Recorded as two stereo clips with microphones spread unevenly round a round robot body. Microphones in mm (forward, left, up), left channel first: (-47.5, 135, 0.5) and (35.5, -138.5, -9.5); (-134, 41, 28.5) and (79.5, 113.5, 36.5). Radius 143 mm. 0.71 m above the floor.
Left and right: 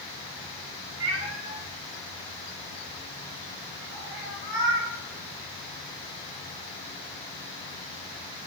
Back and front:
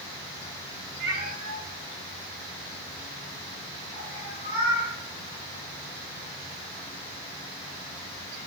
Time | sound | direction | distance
1.0 | a cat meowing | 20° right | 1.4 m